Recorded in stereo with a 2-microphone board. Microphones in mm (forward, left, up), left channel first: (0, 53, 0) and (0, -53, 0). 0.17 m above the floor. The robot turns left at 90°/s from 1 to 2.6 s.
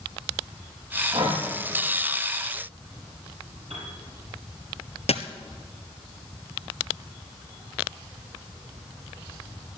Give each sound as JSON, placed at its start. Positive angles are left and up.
{"t": 1.1, "sound": "breathing", "side_deg": -60, "distance_m": 3.5}
{"t": 3.7, "sound": "a piano", "side_deg": -75, "distance_m": 5.5}
{"t": 5.1, "sound": "a dropped coin", "side_deg": 75, "distance_m": 1.0}